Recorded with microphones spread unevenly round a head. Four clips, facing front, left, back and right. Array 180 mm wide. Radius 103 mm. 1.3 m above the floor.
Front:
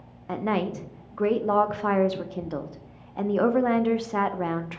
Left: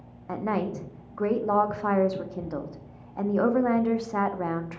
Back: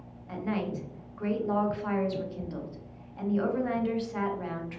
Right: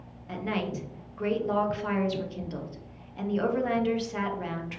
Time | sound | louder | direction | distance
0.3 | a woman speaking | left 3 dB, front 6 dB | 30° left | 0.5 m